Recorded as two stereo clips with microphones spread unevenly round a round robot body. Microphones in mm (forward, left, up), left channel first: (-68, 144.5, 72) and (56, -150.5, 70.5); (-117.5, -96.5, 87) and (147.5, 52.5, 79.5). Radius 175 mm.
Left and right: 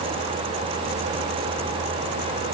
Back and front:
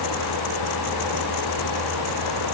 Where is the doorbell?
No doorbell in this recording.